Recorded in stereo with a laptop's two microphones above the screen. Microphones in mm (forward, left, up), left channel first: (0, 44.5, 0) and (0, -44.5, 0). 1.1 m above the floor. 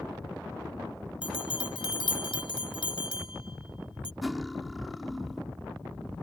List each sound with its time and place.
1.2 s a bell: 75° left (ahead or behind)
4.2 s cutlery clinking: centre (ahead or behind)